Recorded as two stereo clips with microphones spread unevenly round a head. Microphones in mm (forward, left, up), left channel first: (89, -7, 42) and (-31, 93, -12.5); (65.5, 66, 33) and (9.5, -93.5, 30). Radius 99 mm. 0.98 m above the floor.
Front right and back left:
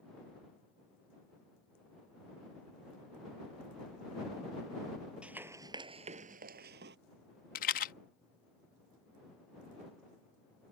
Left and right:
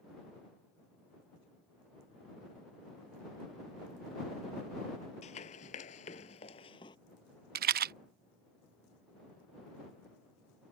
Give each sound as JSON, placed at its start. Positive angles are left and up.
{"t": 5.2, "sound": "running footsteps", "azimuth_deg": 40}
{"t": 7.5, "sound": "a rattle", "azimuth_deg": -75}